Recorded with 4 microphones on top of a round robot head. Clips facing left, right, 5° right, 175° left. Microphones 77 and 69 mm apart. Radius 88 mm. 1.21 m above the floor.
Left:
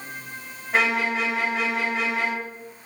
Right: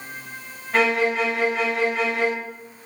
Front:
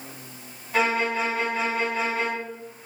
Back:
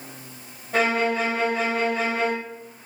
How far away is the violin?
About 1.8 m.